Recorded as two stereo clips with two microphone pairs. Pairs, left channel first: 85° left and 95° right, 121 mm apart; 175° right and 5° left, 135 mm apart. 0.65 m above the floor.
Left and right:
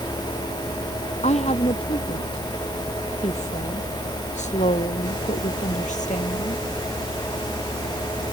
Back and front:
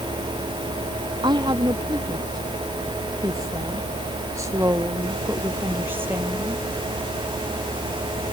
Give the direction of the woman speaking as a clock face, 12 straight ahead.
10 o'clock.